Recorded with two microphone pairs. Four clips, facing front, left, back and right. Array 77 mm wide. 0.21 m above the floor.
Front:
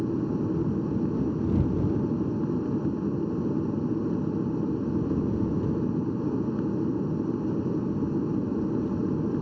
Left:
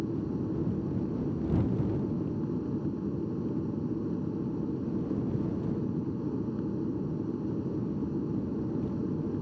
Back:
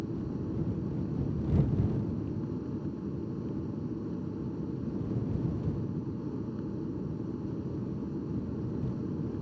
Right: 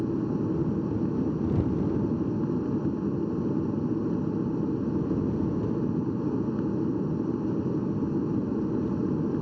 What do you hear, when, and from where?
0.0 s an aircraft: 50° right